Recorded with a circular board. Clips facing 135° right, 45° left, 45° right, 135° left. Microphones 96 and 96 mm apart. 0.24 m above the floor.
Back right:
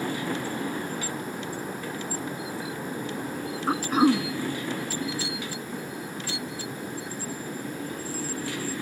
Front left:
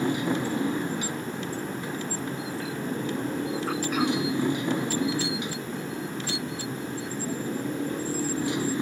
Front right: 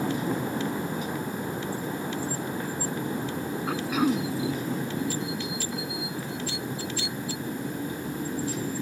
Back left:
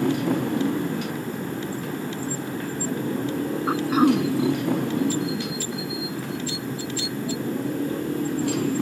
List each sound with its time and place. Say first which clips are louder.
0.0 s a motorcycle: front left 4 dB, back left 5 dB; 115° left
3.7 s throat clearing: back right 7 dB, back left 6 dB; 175° left